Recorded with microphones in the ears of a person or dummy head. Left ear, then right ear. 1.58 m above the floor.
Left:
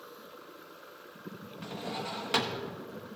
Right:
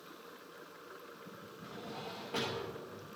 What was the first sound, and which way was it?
A drawer, 55° left (ahead or behind).